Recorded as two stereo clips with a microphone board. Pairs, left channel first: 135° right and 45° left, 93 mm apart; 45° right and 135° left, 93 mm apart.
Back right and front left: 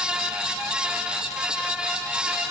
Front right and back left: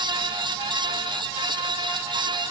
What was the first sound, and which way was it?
Only background noise.